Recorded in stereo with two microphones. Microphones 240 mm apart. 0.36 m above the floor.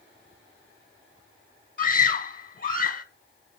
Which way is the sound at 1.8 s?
35° left (ahead or behind).